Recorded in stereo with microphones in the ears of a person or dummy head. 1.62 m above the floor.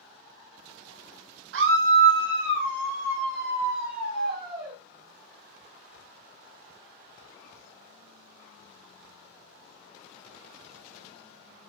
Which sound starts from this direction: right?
A scream, at 1.5 s.